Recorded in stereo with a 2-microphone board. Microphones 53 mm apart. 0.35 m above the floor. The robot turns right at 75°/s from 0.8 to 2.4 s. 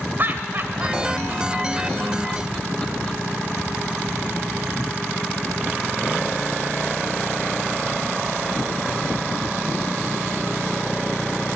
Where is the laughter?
40° right (ahead or behind), 1.5 m; by 3.2 s 20° left (ahead or behind), 1.5 m.